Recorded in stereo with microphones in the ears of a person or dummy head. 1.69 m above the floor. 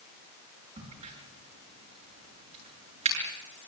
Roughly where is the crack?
Right.